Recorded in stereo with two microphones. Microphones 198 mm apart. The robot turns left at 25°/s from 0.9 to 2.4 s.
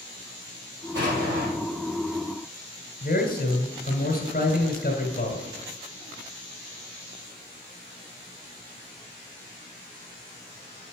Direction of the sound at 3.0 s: 45° left (ahead or behind).